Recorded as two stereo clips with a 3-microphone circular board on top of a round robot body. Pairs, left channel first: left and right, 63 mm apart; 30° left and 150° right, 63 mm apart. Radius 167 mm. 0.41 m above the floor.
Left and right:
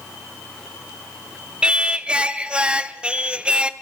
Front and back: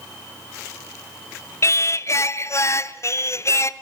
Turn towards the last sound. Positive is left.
turn(degrees=-15)